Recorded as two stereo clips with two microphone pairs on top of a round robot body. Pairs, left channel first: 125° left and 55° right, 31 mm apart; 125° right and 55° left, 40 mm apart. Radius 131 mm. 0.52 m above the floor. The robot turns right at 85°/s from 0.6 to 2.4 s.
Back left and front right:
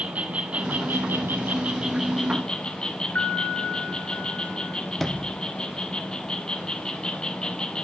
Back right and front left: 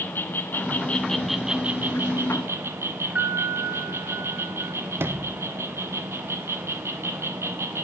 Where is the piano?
100° left, 4 m.